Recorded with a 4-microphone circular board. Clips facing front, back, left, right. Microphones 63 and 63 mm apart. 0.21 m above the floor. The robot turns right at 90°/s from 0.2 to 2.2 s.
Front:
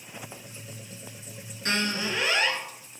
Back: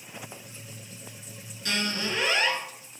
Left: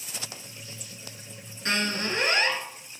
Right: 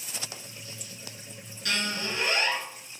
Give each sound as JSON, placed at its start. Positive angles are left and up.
{"t": 1.6, "sound": "a squeak", "azimuth_deg": 40, "distance_m": 1.2}